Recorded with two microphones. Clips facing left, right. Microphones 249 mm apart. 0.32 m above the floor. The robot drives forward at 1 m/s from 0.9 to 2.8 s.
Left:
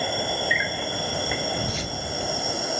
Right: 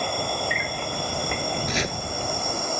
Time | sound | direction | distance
0.0 | an insect | 5° left (ahead or behind) | ?
1.7 | chopping | 75° right (ahead or behind) | ?